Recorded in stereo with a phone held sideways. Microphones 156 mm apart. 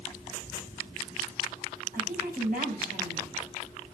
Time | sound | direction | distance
1.9 | a woman speaking | 65° right (ahead or behind) | 8 m